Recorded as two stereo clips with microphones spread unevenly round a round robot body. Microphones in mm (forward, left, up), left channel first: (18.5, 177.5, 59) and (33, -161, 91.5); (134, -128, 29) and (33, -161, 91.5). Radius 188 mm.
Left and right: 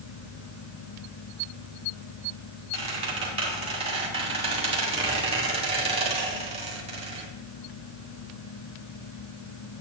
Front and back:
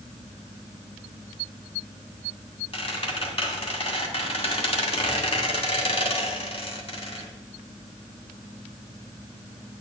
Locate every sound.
2.7 s a squeak: 15° right, 2 m